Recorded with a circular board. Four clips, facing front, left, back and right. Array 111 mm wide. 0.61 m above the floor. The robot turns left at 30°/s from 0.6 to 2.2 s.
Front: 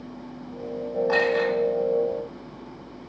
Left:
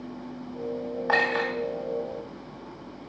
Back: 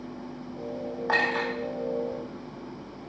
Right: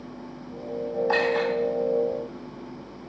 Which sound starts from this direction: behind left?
A clink, at 1.1 s.